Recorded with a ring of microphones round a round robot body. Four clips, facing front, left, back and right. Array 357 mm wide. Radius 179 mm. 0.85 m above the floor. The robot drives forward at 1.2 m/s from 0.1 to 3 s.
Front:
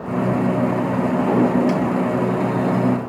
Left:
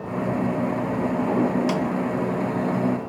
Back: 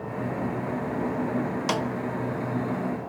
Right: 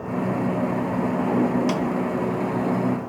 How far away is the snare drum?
About 0.8 m.